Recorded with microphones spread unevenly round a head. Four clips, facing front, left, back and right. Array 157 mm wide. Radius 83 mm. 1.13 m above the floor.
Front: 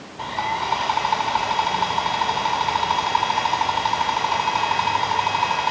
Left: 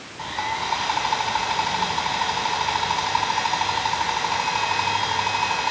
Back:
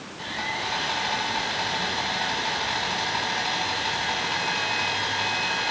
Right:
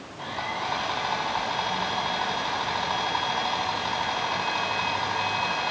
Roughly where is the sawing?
Ahead.